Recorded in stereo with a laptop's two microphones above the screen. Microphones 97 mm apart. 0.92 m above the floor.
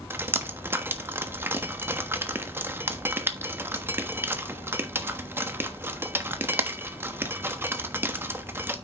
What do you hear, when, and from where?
0.1 s dripping: 20° right (ahead or behind), 1.2 m